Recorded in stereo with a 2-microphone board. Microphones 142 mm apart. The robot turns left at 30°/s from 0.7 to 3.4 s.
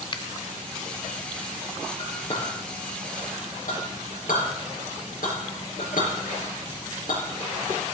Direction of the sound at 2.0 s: 40° left (ahead or behind).